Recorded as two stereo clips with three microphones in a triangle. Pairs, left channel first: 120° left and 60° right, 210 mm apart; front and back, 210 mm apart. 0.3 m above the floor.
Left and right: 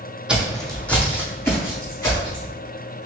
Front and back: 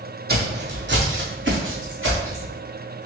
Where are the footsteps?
145° right, 0.8 m; by 2.5 s 165° right, 1.9 m.